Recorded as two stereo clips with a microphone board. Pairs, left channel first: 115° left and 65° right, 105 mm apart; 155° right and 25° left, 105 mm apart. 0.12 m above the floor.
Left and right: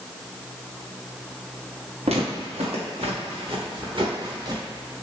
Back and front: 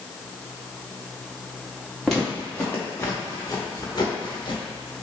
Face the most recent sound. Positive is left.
turn(degrees=-120)